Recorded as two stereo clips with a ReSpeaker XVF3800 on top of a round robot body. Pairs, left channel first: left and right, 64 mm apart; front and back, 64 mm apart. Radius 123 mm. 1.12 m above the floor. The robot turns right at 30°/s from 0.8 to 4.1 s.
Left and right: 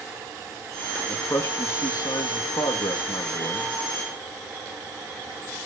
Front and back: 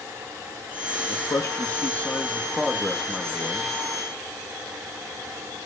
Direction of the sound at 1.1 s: 35° left.